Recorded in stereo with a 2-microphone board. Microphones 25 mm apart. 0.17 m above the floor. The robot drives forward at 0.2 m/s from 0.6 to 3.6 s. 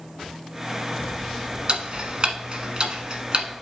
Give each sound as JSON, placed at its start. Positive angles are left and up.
{"t": 1.7, "sound": "ticking", "side_deg": -45, "distance_m": 1.0}